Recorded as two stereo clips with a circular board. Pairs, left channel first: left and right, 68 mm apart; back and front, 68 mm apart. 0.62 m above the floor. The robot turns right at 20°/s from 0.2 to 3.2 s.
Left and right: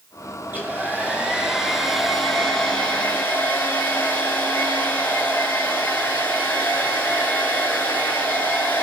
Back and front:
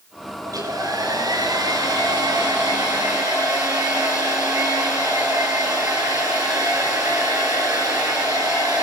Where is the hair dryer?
30° right, 7 m; by 8.8 s 25° left, 7 m.